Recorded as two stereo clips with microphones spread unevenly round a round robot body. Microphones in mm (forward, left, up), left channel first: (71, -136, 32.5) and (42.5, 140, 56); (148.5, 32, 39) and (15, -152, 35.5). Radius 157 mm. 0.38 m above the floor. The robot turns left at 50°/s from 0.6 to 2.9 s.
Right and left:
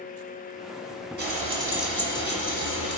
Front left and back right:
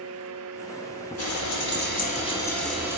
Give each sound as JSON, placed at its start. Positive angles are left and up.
{"t": 1.2, "sound": "frying", "azimuth_deg": 40, "distance_m": 5.5}